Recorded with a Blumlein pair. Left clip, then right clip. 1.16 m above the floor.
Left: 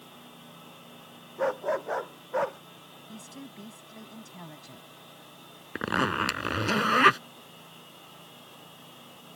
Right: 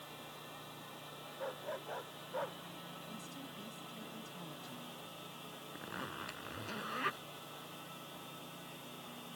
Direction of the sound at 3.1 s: 70° left.